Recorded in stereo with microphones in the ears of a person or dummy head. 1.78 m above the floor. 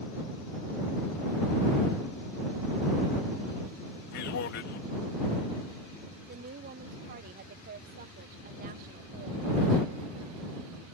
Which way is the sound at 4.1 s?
70° left (ahead or behind).